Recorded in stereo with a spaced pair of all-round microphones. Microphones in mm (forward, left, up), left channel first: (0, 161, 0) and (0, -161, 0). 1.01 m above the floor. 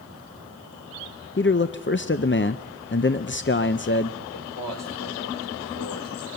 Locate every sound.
1.4 s a man speaking: 35° left (ahead or behind), 0.6 m
4.3 s a man speaking: 80° left, 4 m